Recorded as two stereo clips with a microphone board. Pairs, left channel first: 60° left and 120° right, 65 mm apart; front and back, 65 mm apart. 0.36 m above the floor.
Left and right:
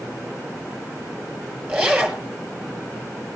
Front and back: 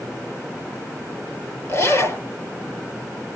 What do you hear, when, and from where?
1.7 s a zipper: 40° right, 5.5 m